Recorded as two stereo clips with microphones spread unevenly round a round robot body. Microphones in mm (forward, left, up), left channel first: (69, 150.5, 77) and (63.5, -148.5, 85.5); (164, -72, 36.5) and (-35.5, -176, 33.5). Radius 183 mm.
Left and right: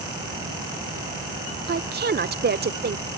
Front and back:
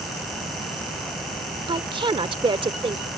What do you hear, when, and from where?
1.7 s a woman speaking: 105° right